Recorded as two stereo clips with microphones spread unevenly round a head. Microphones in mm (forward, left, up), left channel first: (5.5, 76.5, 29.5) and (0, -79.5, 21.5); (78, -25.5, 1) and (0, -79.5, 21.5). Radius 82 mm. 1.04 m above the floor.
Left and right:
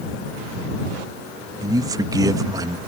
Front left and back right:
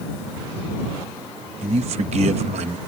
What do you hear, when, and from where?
1.6 s a man speaking: 155° right